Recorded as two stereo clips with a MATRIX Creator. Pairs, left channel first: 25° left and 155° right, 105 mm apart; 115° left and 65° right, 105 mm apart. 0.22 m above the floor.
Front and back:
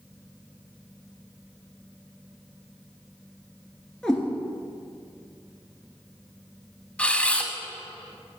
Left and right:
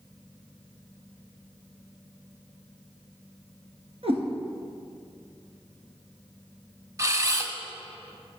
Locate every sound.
4.0 s a cat meowing: 65° right, 1.4 m
7.0 s a camera shutter: 45° right, 0.6 m